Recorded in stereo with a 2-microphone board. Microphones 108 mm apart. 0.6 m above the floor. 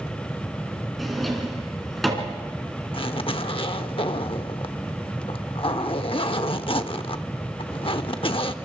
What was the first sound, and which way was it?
A drawer, centre (ahead or behind).